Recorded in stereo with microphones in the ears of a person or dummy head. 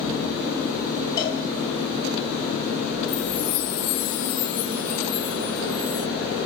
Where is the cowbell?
20° left (ahead or behind), 5 m.